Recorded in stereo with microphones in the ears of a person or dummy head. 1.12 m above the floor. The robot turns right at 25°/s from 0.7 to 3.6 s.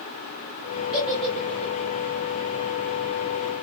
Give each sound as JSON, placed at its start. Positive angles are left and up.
{"t": 0.9, "sound": "a giggle", "side_deg": -5, "distance_m": 1.3}